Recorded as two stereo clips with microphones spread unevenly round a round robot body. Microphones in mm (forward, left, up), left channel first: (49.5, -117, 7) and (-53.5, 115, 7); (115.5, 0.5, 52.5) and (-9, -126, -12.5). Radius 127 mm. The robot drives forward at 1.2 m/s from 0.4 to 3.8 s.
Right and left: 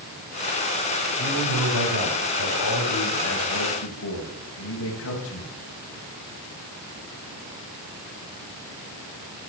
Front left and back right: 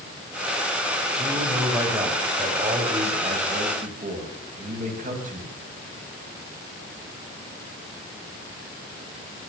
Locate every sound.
1.2 s a man speaking: 55° right, 4.5 m; by 5.6 s 100° right, 4 m